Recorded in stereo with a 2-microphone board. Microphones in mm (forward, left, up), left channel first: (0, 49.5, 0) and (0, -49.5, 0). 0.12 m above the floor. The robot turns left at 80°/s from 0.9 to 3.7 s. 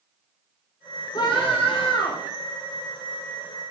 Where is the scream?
130° left, 4.5 m; by 2.3 s 40° left, 4.5 m.